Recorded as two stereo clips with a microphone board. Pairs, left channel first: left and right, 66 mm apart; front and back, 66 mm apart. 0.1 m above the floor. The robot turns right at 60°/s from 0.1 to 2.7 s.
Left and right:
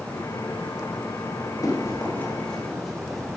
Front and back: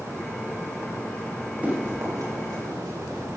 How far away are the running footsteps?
About 5 m.